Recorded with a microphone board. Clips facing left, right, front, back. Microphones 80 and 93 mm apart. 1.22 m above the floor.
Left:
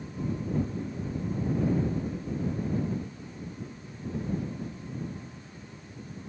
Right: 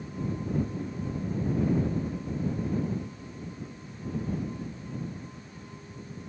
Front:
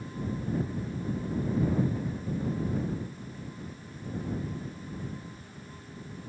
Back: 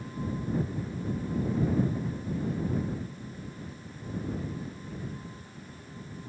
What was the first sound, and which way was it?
Only background noise.